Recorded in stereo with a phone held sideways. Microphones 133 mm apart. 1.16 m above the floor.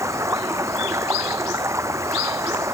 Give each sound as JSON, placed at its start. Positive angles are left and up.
{"t": 0.0, "sound": "running water", "side_deg": -20}